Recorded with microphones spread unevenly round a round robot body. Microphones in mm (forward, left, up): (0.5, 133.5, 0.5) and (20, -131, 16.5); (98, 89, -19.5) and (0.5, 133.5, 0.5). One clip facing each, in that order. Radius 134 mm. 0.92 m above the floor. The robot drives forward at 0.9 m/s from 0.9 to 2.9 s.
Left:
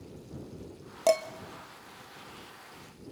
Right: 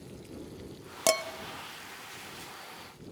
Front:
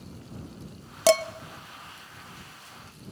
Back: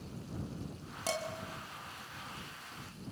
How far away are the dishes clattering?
About 0.7 m.